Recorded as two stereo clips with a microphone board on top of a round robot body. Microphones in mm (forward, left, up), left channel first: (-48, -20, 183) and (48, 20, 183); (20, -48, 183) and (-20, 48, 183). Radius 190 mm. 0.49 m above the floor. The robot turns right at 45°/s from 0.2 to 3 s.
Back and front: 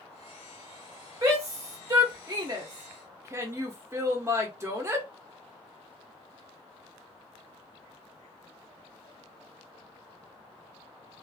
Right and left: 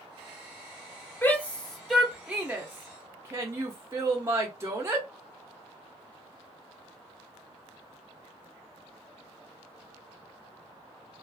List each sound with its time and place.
1.2 s a shout: 10° right, 0.8 m; by 5.1 s 70° left, 0.8 m